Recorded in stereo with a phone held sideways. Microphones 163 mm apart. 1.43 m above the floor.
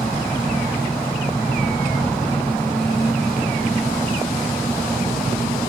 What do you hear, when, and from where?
0.0 s an engine running: 5° left (ahead or behind)